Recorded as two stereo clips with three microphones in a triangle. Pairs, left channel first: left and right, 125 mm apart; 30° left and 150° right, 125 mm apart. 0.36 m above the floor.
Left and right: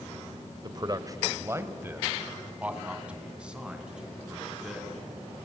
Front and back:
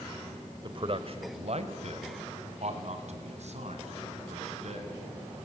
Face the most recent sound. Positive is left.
turn(degrees=-175)